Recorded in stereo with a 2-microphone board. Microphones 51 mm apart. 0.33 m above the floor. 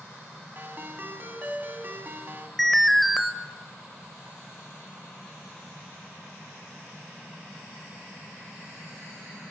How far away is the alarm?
About 1.0 m.